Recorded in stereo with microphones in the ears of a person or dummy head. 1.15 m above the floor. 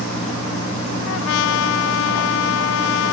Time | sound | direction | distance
1.1 | a trumpet | 70° left (ahead or behind) | ?